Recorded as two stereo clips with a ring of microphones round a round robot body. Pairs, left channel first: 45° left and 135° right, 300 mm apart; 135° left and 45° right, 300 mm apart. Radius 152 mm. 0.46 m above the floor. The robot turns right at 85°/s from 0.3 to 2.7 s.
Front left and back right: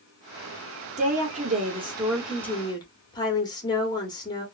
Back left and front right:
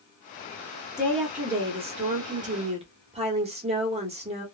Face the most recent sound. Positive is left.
turn(degrees=-10)